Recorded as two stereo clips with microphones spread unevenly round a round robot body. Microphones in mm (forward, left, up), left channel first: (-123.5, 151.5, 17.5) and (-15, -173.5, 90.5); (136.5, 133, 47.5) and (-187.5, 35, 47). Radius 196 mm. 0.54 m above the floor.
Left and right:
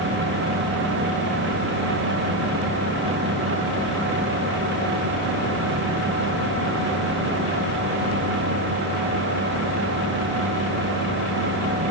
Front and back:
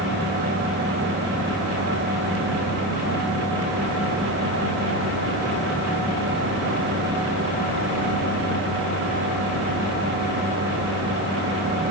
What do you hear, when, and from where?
Only background noise.